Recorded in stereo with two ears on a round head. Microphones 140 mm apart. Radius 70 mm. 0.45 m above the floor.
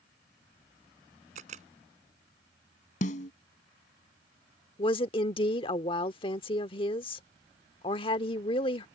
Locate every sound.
1.4 s a camera shutter: 50° right (ahead or behind)
3.0 s a snare drum: 50° left (ahead or behind)
4.8 s a woman speaking: 35° left (ahead or behind)